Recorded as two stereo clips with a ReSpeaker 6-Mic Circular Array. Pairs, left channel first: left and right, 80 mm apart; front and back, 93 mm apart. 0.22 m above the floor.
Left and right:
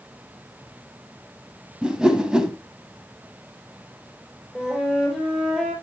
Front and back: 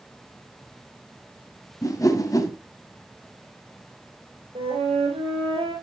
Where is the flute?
175° right, 5 m.